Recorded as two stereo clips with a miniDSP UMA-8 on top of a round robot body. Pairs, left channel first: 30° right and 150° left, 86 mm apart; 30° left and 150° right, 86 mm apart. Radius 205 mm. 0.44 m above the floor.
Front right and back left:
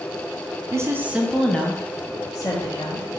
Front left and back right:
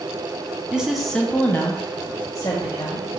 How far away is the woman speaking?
About 0.8 m.